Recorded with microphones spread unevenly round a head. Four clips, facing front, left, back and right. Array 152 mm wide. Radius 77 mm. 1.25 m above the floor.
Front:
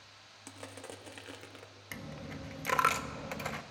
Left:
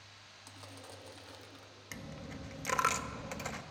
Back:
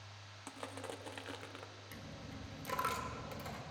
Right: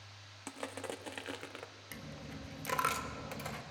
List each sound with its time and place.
0.5 s crushing: 75° right, 0.8 m
1.9 s a dropped coin: straight ahead, 0.7 m